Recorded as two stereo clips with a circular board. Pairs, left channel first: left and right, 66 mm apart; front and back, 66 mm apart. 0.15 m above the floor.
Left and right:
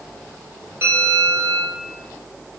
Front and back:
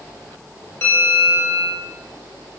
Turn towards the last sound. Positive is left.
turn(degrees=-40)